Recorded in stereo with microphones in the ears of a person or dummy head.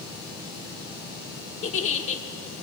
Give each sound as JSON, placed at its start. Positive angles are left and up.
{"t": 1.6, "sound": "a giggle", "side_deg": 35, "distance_m": 1.4}